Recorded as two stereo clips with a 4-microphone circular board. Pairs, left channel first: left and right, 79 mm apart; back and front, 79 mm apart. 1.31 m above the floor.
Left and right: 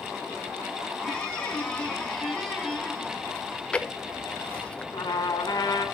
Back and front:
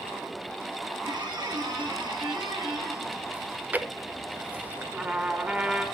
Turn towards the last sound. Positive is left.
turn(degrees=70)